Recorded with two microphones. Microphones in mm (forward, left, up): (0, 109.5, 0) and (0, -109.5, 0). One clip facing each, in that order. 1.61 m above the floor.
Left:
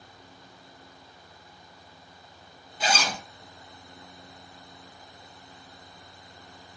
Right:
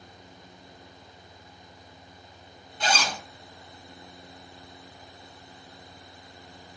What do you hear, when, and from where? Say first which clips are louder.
2.8 s a zipper: even; 5° left (ahead or behind), 0.9 m